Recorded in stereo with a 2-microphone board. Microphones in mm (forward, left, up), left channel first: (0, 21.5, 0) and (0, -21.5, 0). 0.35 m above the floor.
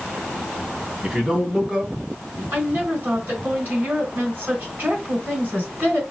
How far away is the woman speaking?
About 3 m.